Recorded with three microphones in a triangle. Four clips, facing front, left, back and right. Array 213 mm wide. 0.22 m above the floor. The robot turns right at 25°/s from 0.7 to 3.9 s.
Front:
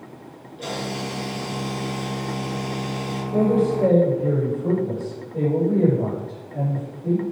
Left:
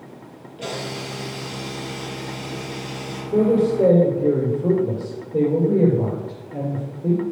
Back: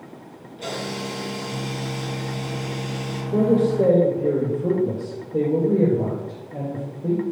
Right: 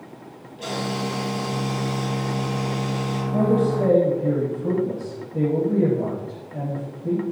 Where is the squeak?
No squeak in this recording.